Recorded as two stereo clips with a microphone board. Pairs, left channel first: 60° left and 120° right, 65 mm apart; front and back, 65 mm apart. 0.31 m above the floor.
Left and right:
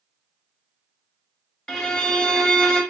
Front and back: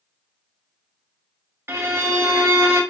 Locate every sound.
1.7 s a violin: 140° left, 0.6 m